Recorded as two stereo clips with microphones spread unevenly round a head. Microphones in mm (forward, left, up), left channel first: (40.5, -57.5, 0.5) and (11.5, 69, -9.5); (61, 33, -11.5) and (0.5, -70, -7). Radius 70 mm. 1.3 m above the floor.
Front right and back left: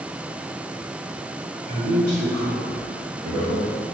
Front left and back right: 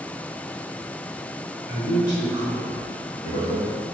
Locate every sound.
1.7 s a man speaking: 90° left, 1.7 m; by 3.8 s 25° left, 1.1 m